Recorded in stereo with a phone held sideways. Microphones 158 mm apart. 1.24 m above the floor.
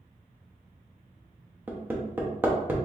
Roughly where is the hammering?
Centre.